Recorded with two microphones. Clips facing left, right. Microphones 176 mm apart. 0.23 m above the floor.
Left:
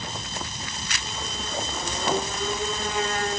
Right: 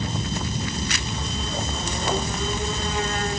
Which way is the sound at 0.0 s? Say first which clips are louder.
Right 7 dB; 45° right (ahead or behind).